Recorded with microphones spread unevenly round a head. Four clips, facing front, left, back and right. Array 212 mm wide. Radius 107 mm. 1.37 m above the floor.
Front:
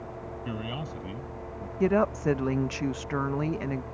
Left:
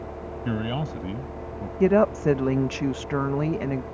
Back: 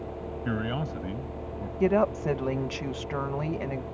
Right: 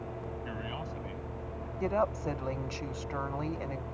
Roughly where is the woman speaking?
Left.